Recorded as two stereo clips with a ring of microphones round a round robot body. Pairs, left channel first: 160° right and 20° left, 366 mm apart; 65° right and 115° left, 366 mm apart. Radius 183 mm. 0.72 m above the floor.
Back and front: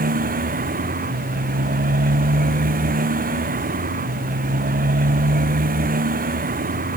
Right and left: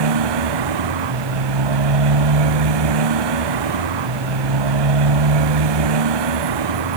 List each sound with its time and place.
0.0 s a motorcycle: 90° left